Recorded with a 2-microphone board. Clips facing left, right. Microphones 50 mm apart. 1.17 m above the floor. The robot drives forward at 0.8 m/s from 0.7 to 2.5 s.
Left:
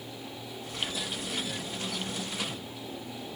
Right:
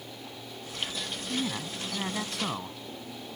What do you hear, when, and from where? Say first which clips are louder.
1.3 s a man speaking: right 3 dB; 85° right